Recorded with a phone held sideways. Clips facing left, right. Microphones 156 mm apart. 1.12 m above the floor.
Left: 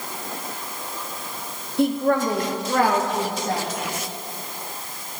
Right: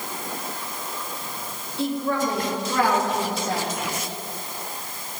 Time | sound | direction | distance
1.8 | a woman speaking | 60° left (ahead or behind) | 0.8 m